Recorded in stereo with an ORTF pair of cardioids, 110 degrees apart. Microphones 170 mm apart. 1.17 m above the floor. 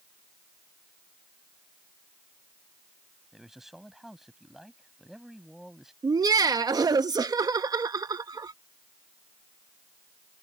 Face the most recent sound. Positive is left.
turn(degrees=-20)